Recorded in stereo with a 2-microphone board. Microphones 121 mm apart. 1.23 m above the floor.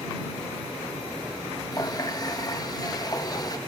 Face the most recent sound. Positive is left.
turn(degrees=30)  # may be behind; listen again after turning